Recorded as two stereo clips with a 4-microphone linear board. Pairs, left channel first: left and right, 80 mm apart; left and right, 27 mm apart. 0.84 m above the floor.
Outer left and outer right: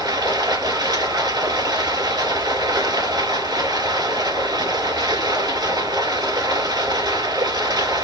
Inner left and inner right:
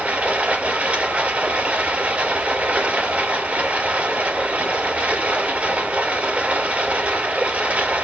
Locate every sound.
0.0 s running water: 70° right (ahead or behind), 2.5 m